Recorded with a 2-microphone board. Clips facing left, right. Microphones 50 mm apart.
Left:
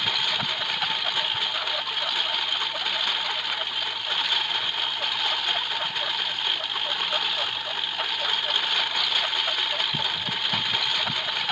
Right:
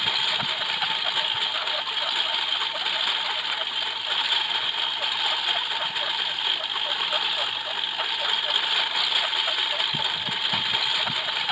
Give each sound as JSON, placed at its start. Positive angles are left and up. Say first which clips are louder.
{"t": 0.0, "sound": "a lawn mower", "louder": "even", "side_deg": -5}